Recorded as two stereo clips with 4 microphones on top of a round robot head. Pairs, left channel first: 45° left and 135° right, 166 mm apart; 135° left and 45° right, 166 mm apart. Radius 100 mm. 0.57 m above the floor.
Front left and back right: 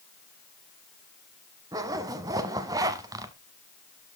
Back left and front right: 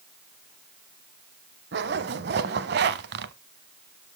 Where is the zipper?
65° right, 0.7 m.